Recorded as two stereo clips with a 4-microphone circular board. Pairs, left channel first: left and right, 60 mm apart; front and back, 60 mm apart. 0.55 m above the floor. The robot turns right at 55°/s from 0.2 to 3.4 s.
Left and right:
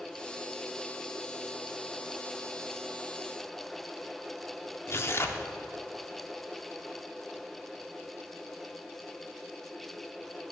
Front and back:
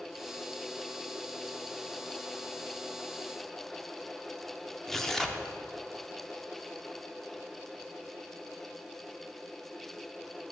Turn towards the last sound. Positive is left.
turn(degrees=85)